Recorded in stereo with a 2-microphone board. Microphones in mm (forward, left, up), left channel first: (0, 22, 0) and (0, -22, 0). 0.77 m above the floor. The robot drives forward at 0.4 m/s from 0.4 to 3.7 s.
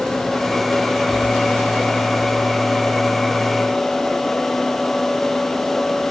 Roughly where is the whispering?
No whispering in this recording.